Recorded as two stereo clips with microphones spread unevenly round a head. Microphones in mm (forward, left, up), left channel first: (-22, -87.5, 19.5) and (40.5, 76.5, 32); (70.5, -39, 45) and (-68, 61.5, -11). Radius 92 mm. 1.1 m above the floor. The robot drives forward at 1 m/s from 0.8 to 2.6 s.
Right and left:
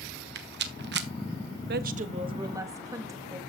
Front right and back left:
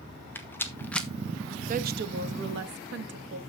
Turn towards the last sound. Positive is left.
turn(degrees=145)